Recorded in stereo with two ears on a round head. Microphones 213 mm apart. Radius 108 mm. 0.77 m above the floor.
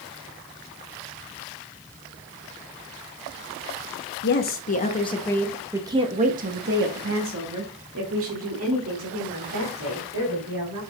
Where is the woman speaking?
45° left (ahead or behind), 1.2 m; by 10.8 s 70° right (ahead or behind), 3.5 m.